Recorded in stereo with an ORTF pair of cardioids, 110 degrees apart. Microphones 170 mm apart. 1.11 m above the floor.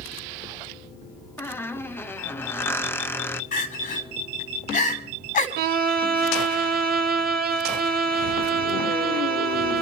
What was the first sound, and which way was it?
A squeak, 15° left.